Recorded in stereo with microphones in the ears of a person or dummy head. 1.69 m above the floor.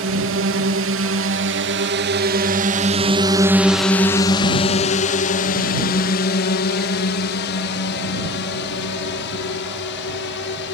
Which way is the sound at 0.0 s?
65° right (ahead or behind).